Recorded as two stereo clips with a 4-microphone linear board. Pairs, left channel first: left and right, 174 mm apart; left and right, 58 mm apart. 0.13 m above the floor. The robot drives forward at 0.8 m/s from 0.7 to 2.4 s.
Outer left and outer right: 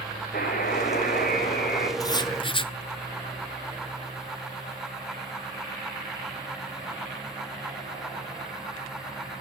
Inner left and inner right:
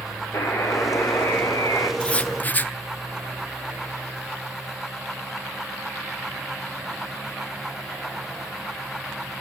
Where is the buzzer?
55° left (ahead or behind), 3 m; by 1.9 s 70° left (ahead or behind), 2.5 m.